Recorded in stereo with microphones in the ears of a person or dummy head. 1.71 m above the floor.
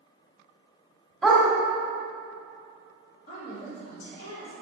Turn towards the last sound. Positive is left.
turn(degrees=50)  # may be behind; listen again after turning